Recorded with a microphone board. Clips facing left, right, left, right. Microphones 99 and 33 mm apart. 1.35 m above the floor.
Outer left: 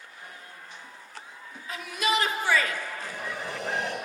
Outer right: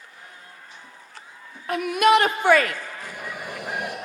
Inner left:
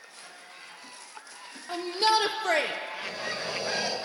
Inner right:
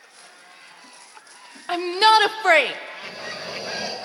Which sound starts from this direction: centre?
Breathing, at 3.0 s.